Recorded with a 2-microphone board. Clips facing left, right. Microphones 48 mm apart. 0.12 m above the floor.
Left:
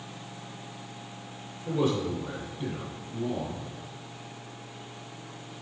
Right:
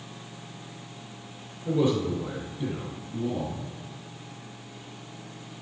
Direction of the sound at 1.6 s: 20° right (ahead or behind).